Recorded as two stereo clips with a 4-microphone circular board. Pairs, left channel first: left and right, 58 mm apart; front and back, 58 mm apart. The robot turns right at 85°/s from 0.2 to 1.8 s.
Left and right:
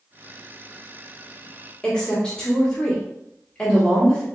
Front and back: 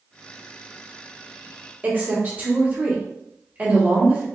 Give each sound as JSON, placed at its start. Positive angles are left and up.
{"t": 1.8, "sound": "a woman speaking", "azimuth_deg": 155, "distance_m": 1.4}